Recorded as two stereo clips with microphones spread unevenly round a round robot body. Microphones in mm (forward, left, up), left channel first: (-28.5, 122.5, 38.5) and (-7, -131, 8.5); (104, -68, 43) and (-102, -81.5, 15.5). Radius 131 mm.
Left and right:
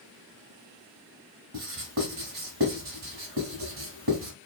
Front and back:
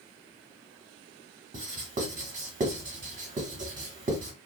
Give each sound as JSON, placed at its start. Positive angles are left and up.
{"t": 1.5, "sound": "writing", "azimuth_deg": -125, "distance_m": 1.1}